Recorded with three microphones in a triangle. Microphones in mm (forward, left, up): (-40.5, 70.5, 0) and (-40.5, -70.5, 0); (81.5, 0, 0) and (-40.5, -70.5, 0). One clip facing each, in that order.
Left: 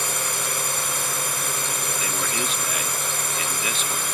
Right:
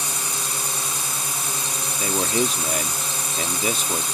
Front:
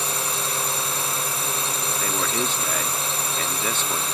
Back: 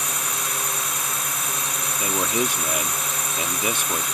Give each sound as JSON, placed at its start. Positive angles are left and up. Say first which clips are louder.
{"t": 0.0, "sound": "a drone", "louder": "left 2 dB, front 2 dB", "azimuth_deg": 85}
{"t": 2.0, "sound": "a man speaking", "louder": "right 10 dB, back 4 dB", "azimuth_deg": -80}